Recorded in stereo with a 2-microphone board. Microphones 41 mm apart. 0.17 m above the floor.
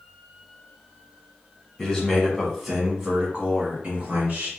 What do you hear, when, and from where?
1.8 s a man speaking: 15° left (ahead or behind), 1.2 m; by 4.5 s 35° right (ahead or behind), 1.6 m